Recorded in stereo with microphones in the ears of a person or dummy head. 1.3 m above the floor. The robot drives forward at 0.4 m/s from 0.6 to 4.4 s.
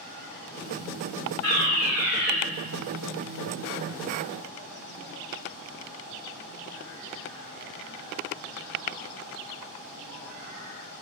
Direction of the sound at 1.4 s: 50° left (ahead or behind).